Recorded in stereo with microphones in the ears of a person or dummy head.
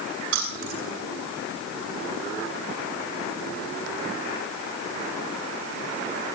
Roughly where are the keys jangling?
Right.